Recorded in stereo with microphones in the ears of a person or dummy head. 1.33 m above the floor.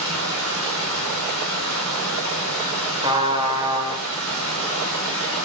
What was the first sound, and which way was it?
Running water, 90° right.